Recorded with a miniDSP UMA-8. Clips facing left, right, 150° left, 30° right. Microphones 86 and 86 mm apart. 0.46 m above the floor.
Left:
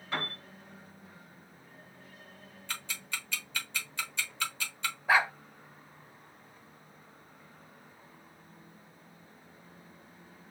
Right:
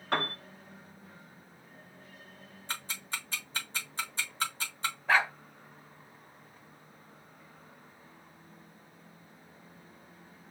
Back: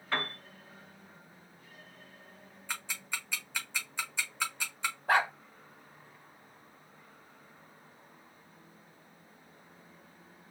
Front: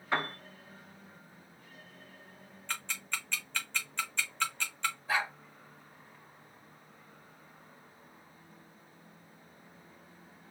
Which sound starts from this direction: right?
A piano, at 0.1 s.